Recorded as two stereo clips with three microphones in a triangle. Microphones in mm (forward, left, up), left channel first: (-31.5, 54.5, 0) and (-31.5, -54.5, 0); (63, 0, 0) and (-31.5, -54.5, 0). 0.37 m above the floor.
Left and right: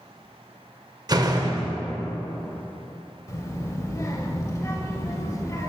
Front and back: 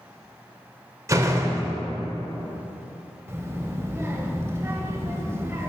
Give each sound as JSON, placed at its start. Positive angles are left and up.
{"t": 1.1, "sound": "a door slam", "azimuth_deg": -110, "distance_m": 0.6}
{"t": 3.3, "sound": "a child speaking", "azimuth_deg": 150, "distance_m": 0.7}